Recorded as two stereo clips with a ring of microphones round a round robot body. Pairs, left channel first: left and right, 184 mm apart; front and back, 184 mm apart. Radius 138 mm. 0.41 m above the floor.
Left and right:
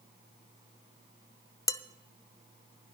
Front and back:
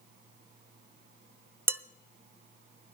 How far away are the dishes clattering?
About 0.6 m.